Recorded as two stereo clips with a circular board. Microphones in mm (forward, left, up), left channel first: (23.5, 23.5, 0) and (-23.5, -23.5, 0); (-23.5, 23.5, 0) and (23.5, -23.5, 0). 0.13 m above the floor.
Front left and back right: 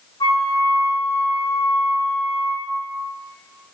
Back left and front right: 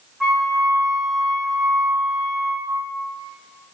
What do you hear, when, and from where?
0.2 s a flute: 40° left, 2.5 m